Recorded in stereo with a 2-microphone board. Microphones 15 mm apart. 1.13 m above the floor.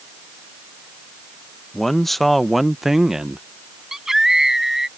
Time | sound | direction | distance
1.7 | a man speaking | 25° left (ahead or behind) | ?
3.9 | a scream | 35° right (ahead or behind) | ?